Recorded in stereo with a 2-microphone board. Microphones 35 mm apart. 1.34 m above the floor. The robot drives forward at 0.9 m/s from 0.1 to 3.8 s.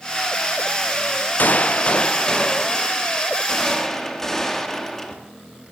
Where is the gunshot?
55° left (ahead or behind), 0.6 m; by 5.2 s 10° left (ahead or behind), 2.5 m.